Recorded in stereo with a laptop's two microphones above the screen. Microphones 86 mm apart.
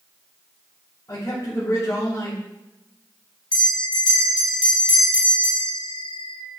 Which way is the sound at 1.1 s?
35° left (ahead or behind).